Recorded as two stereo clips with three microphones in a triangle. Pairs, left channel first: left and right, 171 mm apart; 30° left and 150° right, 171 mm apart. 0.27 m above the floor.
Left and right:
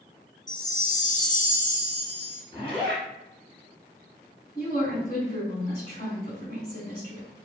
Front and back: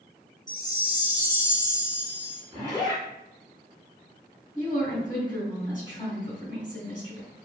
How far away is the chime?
About 0.5 m.